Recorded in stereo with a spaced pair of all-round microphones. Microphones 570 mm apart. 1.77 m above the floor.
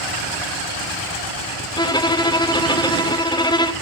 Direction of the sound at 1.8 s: 5° left (ahead or behind).